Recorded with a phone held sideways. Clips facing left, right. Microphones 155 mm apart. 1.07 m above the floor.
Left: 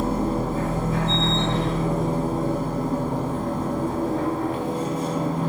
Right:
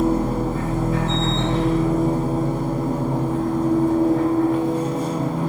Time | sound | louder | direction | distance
0.0 | a machine running | right 4 dB | 25° left (ahead or behind) | 1.4 m